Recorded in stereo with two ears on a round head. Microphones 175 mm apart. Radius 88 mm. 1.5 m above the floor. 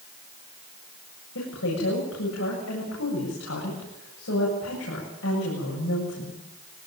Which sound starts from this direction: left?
A woman speaking, at 1.4 s.